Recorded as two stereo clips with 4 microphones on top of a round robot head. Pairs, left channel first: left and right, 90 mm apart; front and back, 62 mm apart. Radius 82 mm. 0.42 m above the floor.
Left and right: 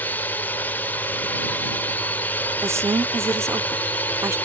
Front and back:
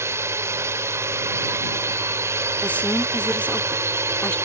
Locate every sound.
0.0 s a drone: 160° left
2.6 s a woman speaking: 55° right